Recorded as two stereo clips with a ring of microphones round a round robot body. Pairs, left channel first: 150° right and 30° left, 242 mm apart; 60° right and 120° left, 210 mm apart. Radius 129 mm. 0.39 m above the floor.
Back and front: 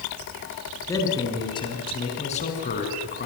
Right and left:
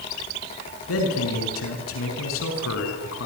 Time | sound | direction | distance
0.9 | a man speaking | 70° right | 7 m